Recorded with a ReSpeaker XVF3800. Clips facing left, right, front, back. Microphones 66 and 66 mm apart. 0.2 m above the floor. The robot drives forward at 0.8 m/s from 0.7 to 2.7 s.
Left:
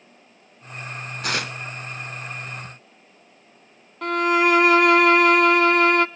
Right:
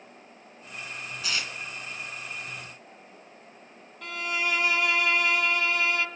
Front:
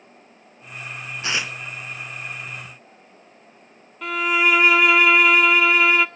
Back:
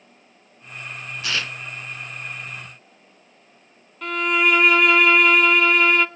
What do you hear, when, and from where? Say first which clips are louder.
1.2 s tearing paper: left 7 dB, front 1 dB; 65° left, 0.7 m; by 1.6 s 90° left, 0.6 m
4.0 s a violin: left 12 dB, even; 90° left, 0.6 m